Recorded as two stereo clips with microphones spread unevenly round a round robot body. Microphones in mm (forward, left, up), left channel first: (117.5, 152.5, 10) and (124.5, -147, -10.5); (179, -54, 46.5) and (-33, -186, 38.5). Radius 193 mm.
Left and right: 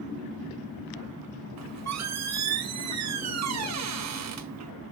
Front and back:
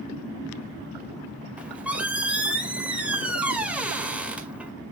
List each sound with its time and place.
1.6 s a squeak: 65° right, 1.9 m